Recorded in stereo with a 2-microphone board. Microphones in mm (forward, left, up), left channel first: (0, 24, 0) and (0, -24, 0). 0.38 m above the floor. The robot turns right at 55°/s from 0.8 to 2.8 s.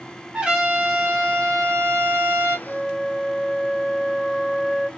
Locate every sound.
0.3 s a trumpet: 165° right, 1.9 m; by 2.6 s 70° right, 1.9 m
2.7 s a flute: 10° right (ahead or behind), 0.5 m; by 4.9 s 5° right (ahead or behind), 0.5 m